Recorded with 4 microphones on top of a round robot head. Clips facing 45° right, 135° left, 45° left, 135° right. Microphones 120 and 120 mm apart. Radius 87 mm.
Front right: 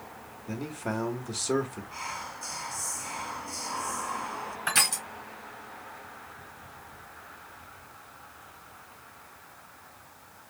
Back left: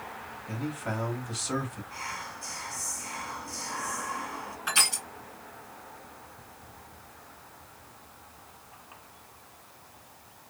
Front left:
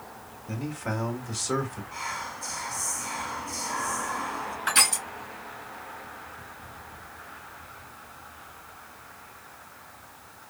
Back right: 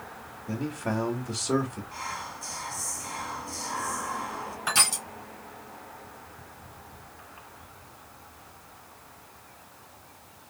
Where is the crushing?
85° right, 2.5 m.